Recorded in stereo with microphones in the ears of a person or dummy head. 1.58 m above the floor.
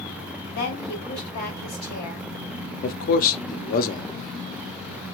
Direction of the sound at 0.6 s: 50° left (ahead or behind).